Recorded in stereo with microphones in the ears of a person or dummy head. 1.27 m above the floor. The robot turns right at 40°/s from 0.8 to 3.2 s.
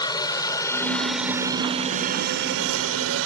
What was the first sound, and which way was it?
A helicopter, 25° left (ahead or behind).